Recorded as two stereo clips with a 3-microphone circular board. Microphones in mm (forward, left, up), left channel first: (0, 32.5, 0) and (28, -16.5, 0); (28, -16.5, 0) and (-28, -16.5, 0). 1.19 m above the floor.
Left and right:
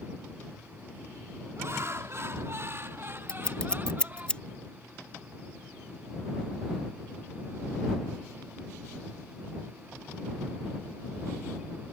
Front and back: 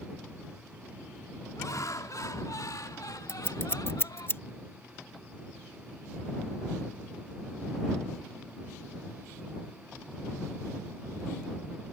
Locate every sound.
1.6 s laughter: 20° right; by 4.3 s 5° left
3.3 s scissors: 45° left